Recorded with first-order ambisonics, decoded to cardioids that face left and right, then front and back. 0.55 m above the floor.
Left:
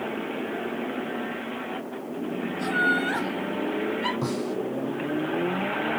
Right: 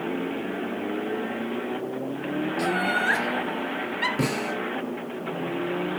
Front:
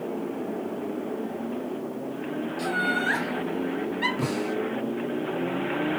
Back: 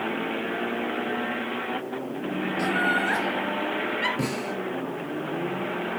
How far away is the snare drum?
About 6 m.